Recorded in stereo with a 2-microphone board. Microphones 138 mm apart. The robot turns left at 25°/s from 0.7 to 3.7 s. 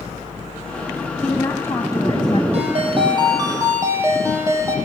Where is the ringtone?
50° right (ahead or behind), 6.5 m; by 4.8 s 20° right (ahead or behind), 6.5 m.